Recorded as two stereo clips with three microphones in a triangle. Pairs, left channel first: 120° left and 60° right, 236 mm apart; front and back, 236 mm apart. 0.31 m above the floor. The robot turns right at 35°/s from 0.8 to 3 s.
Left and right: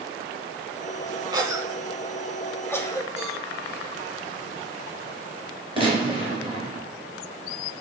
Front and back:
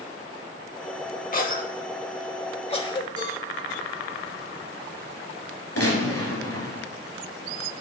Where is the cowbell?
Straight ahead, 4 m.